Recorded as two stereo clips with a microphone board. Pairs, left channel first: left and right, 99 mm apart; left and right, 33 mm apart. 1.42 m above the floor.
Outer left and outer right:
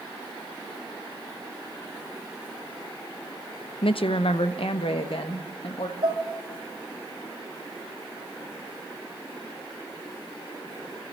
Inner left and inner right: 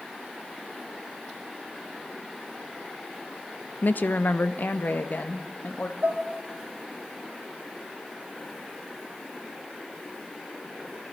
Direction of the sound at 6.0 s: 70° right (ahead or behind).